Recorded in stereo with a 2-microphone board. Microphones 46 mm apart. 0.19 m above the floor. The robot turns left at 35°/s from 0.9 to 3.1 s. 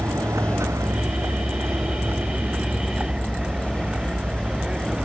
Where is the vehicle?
80° right; by 5.1 s 155° right.